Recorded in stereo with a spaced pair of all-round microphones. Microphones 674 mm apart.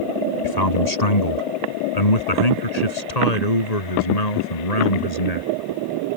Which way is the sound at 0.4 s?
75° left (ahead or behind).